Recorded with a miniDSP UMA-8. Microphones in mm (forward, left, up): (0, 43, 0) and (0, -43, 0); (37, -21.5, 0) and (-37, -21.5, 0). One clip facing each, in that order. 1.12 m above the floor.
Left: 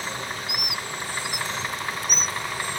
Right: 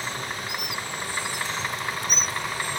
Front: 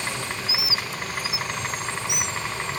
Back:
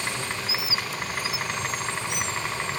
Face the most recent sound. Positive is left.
turn(degrees=-140)